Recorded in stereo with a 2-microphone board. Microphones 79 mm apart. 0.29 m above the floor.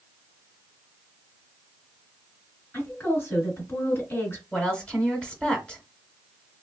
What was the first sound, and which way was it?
A woman speaking, 30° left (ahead or behind).